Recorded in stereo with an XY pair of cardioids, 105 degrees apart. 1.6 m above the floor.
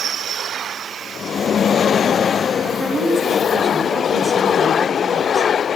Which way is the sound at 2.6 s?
20° right.